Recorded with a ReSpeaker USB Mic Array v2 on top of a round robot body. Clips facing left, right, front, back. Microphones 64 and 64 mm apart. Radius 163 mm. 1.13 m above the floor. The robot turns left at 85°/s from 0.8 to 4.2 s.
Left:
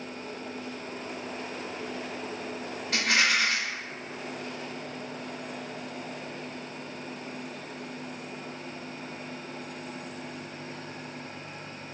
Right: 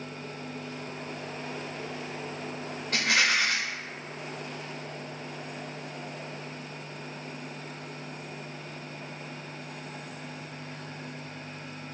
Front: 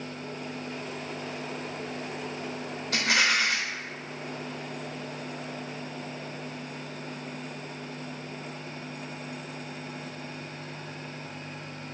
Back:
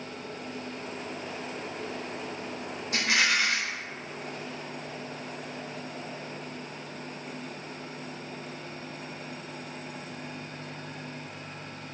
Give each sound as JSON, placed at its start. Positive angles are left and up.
{"t": 2.9, "sound": "a rattle", "azimuth_deg": 5, "distance_m": 0.5}